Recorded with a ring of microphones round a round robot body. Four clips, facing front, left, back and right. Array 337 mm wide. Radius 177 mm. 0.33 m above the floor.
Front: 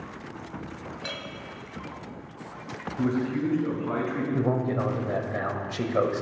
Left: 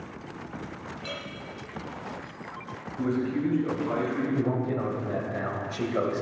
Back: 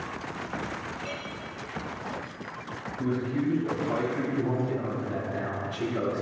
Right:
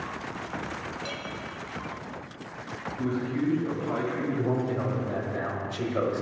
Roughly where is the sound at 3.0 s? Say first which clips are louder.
Left 2 dB, front 2 dB; ahead left.